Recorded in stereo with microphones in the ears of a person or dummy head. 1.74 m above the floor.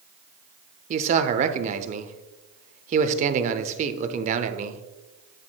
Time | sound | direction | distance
0.9 | a man speaking | 40° right (ahead or behind) | 0.6 m